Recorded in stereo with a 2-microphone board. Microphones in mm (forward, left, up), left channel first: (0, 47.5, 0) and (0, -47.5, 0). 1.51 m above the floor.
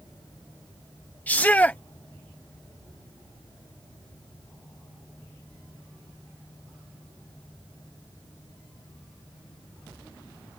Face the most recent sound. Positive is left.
turn(degrees=20)  # may be behind; listen again after turning